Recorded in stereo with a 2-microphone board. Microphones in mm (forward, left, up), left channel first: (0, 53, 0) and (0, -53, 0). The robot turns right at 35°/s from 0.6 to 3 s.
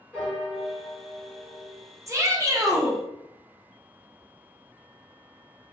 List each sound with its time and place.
0.1 s a piano: 175° right, 1.4 m; by 1.9 s 130° right, 1.4 m
2.1 s a shout: 30° right (ahead or behind), 0.6 m; by 3.0 s 25° right (ahead or behind), 0.6 m